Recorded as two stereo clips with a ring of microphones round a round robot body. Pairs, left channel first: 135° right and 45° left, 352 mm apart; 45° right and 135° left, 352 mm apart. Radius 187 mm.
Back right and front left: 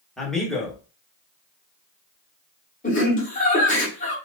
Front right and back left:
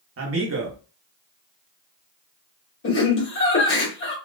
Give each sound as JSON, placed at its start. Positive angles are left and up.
{"t": 0.2, "sound": "a man speaking", "azimuth_deg": 135, "distance_m": 1.5}
{"t": 2.8, "sound": "laughter", "azimuth_deg": -75, "distance_m": 1.8}